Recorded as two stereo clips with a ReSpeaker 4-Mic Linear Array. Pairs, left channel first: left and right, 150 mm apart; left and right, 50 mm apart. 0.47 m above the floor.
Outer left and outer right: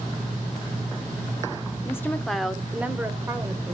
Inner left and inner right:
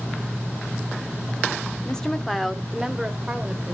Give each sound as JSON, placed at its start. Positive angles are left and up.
{"t": 1.9, "sound": "a woman speaking", "side_deg": 20, "distance_m": 0.8}